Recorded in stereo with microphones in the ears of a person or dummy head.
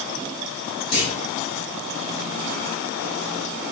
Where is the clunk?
20° left (ahead or behind), 2.5 m.